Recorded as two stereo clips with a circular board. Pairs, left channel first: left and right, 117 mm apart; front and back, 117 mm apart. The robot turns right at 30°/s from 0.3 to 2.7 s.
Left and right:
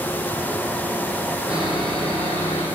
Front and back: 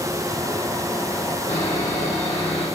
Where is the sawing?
10° right, 3 m; by 2.6 s 25° left, 3 m.